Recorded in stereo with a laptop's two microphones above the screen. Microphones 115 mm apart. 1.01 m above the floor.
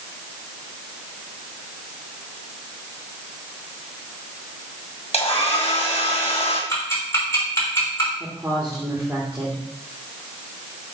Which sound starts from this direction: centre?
A woman speaking, at 8.2 s.